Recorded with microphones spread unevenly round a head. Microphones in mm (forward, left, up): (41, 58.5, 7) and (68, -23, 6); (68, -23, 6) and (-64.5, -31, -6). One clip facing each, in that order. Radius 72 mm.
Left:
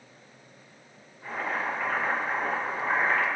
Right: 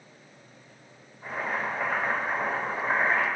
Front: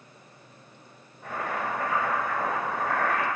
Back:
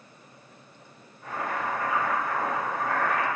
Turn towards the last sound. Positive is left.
turn(degrees=-5)